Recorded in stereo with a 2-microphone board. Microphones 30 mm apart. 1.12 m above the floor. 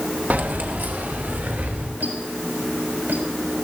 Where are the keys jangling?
65° right (ahead or behind), 0.7 m; by 1.9 s 85° right, 3 m.